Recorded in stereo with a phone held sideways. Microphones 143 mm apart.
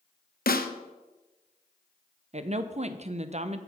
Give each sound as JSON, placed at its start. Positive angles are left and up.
{"t": 0.5, "sound": "a snare drum", "side_deg": 85, "distance_m": 0.6}
{"t": 2.3, "sound": "a woman speaking", "side_deg": -45, "distance_m": 0.5}